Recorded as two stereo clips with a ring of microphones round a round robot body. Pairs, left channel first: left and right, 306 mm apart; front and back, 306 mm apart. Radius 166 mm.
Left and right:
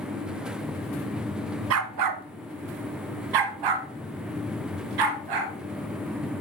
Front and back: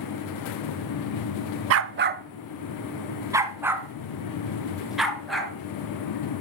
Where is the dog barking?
140° right, 0.6 m; by 5.5 s 90° right, 2.5 m.